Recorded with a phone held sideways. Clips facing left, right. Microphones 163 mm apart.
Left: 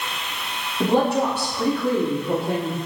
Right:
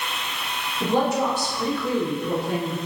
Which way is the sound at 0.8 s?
60° left (ahead or behind).